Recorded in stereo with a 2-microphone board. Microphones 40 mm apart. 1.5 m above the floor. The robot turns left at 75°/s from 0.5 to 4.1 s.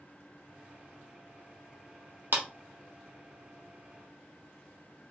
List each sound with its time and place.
2.3 s a clap: 55° right (ahead or behind), 1.0 m